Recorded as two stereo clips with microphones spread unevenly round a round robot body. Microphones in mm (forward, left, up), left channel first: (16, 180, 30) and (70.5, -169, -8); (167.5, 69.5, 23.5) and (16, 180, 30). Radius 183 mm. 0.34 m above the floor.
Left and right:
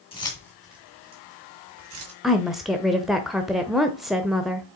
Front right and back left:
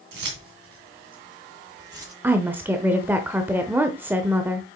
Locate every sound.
0.1 s keys jangling: 175° left, 2 m; by 2.1 s 130° right, 2.5 m
2.2 s a woman speaking: 150° right, 0.8 m